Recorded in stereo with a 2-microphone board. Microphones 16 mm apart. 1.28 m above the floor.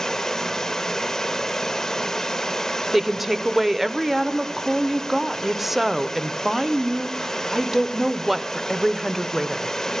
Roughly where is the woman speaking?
Centre.